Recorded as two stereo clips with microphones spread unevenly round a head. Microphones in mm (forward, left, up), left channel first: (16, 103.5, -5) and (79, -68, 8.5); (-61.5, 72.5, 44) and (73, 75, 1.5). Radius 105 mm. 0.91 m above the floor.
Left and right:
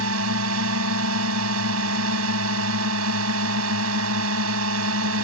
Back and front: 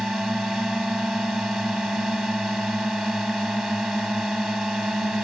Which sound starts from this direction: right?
A drone, at 0.0 s.